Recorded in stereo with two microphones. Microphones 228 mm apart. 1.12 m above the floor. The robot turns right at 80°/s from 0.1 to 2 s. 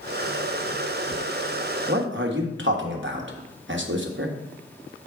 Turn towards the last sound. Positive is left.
turn(degrees=-55)  # may be behind; listen again after turning